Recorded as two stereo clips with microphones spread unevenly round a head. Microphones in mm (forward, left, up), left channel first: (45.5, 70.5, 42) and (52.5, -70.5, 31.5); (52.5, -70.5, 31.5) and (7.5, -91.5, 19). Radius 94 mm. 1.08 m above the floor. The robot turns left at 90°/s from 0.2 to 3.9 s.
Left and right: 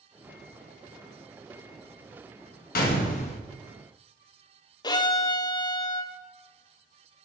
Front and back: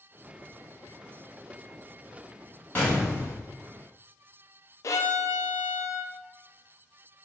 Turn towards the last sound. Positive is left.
turn(degrees=30)